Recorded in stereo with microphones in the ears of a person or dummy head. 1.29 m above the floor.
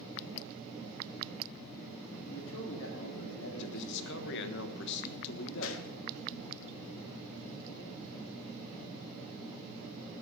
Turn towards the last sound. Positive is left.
turn(degrees=65)  # may be behind; listen again after turning